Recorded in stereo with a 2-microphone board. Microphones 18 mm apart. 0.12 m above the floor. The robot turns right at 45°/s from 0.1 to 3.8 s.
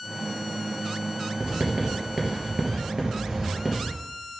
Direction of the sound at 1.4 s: 55° right (ahead or behind).